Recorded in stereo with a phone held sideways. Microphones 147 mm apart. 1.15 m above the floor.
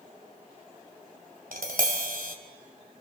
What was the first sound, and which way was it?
Tapping, 75° right (ahead or behind).